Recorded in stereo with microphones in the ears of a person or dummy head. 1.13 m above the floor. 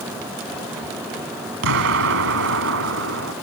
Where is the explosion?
70° right (ahead or behind).